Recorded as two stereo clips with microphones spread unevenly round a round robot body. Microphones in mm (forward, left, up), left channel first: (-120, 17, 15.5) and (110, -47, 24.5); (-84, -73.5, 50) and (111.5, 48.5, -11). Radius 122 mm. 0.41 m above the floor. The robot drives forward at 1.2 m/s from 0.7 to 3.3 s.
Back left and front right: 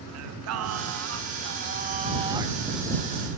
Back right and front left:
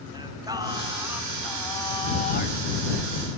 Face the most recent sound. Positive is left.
turn(degrees=-125)